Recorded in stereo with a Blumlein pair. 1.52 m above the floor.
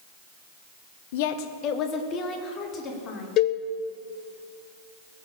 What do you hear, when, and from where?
1.1 s a woman speaking: 55° left, 1.1 m; by 3.3 s 25° left, 4 m
3.4 s a cowbell: 35° left, 1.1 m